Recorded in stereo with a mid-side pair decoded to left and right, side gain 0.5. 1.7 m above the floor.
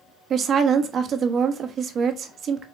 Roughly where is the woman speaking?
Ahead right.